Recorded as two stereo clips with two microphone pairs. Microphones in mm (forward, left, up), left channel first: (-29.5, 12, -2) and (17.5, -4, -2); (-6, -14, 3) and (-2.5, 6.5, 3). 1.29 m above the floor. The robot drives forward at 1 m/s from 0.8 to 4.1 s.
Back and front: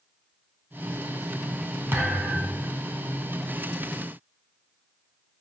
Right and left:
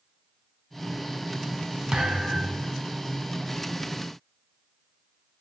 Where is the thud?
25° left, 2.5 m; by 2.7 s 35° left, 2 m.